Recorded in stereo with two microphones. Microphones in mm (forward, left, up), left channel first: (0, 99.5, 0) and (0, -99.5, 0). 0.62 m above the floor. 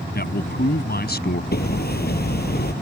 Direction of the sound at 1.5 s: 55° left (ahead or behind).